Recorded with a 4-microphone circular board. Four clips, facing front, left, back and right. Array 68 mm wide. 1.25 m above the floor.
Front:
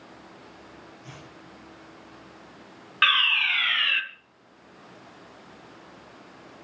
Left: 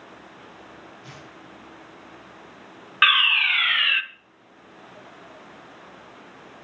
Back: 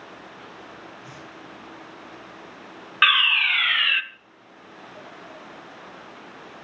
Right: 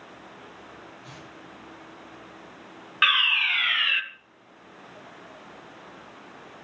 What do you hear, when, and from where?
1.0 s tearing paper: 90° left, 8.5 m
3.0 s a fire alarm: 135° left, 1.0 m